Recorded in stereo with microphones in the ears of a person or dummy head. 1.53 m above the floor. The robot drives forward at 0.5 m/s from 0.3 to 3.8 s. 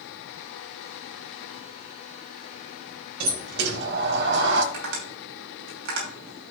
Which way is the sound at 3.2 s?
50° right (ahead or behind).